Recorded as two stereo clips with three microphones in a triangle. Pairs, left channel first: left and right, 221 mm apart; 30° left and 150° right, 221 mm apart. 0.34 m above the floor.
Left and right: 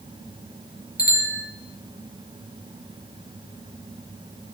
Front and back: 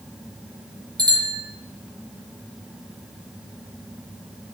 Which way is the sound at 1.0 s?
140° left.